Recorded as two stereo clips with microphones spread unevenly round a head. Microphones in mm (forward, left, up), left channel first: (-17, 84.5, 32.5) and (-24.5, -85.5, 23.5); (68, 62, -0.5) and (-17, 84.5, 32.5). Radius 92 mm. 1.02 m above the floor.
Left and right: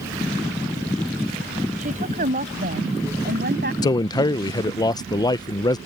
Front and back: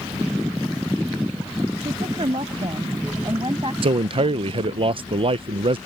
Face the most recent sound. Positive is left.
turn(degrees=150)